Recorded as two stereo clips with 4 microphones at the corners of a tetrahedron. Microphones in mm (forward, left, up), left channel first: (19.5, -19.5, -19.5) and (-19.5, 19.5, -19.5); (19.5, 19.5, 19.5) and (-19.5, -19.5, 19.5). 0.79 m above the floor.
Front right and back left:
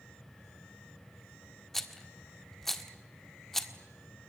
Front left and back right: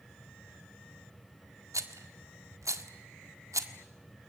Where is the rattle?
130° right, 1.6 m.